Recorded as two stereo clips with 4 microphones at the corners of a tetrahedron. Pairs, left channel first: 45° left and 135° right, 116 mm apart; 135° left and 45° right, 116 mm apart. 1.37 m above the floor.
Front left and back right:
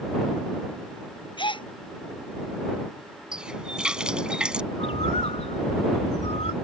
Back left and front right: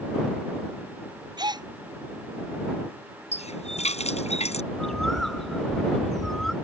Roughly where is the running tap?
Behind left.